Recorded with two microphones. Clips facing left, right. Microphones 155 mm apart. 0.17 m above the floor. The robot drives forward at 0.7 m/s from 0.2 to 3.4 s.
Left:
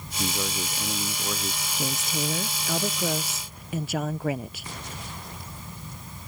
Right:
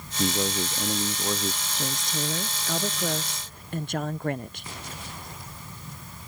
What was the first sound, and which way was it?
A man speaking, 20° right (ahead or behind).